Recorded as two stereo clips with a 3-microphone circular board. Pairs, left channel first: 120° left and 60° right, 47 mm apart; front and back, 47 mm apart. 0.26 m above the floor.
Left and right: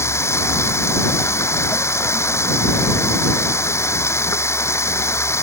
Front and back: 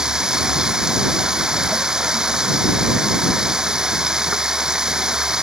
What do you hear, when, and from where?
0.0 s running water: 105° left